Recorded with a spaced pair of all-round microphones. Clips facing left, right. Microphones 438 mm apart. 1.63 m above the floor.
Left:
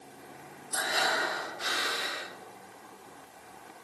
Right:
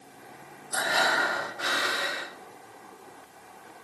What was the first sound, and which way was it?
Breathing, 75° right (ahead or behind).